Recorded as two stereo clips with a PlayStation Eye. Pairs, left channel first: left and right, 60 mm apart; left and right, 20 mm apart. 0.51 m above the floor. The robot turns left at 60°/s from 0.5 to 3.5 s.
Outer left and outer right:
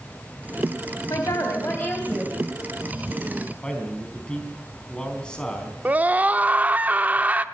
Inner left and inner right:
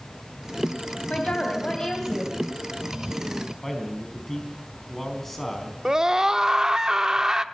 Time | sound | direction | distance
1.1 | a woman speaking | 80° left | 3 m
3.6 | a man speaking | 15° left (ahead or behind) | 4.5 m
5.8 | a scream | 30° right (ahead or behind) | 0.8 m